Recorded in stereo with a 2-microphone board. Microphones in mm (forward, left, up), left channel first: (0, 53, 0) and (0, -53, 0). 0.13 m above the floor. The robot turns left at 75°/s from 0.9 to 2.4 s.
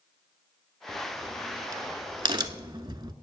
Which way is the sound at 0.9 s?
5° left (ahead or behind).